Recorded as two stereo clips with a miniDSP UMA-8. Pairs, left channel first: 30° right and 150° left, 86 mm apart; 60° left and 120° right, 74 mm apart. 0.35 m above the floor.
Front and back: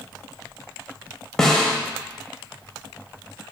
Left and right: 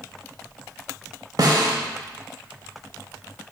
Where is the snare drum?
115° right, 0.5 m.